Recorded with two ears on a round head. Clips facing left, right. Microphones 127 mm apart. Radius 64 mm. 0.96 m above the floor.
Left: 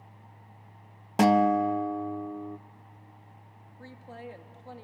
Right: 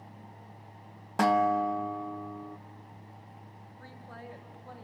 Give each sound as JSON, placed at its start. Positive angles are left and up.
{"t": 1.2, "sound": "a guitar", "side_deg": 25, "distance_m": 0.6}
{"t": 3.8, "sound": "a woman speaking", "side_deg": 25, "distance_m": 1.9}